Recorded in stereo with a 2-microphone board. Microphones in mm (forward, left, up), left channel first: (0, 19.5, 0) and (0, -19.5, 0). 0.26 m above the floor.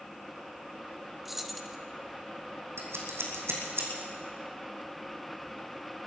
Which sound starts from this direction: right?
Scissors, at 2.8 s.